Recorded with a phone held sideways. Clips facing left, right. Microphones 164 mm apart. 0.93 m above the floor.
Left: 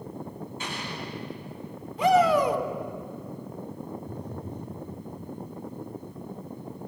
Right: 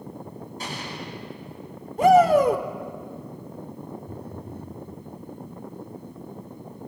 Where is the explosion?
40° right (ahead or behind), 7 m.